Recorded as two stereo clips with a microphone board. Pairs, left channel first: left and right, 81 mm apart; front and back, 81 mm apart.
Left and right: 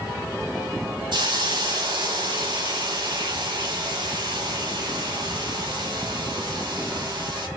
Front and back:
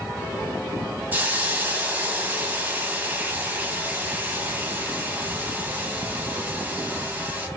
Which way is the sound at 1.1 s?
115° right.